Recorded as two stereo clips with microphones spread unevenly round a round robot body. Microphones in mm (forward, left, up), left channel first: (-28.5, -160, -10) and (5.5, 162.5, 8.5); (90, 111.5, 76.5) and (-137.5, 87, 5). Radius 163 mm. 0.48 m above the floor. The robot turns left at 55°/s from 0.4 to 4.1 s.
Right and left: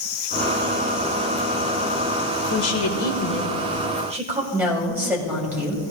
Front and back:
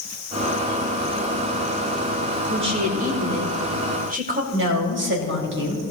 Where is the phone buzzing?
I don't hear a phone buzzing.